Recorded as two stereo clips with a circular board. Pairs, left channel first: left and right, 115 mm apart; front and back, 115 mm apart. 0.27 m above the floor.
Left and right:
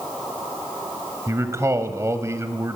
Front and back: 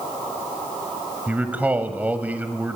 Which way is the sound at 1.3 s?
120° right.